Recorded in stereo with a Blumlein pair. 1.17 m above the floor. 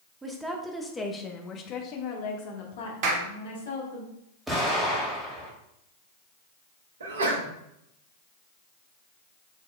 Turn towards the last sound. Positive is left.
turn(degrees=-65)